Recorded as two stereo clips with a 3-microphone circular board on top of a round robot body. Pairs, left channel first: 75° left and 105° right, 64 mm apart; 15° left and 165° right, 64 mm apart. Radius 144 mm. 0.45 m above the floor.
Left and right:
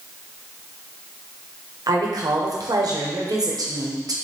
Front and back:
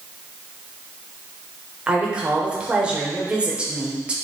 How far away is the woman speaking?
About 1.7 m.